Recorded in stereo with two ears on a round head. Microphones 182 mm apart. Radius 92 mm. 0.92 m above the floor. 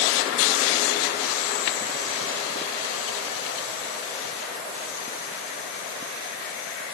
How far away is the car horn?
No car horn in this recording.